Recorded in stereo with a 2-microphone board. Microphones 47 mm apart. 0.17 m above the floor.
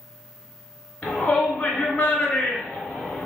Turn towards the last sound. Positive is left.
turn(degrees=20)  # may be behind; listen again after turning